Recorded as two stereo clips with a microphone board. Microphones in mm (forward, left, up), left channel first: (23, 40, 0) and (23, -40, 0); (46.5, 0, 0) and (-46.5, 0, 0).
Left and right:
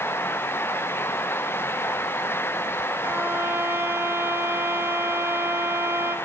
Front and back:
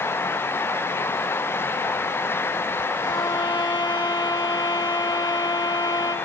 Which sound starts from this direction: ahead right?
A violin, at 3.0 s.